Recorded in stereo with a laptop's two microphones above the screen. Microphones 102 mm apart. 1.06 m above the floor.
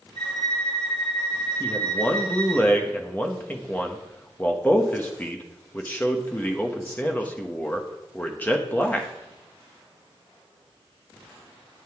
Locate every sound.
0.1 s a violin: 70° left (ahead or behind), 6.5 m
1.6 s a man speaking: 15° left (ahead or behind), 1.0 m